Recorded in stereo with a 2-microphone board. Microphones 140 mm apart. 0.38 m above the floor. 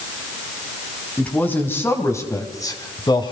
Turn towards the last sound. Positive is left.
turn(degrees=35)  # may be behind; listen again after turning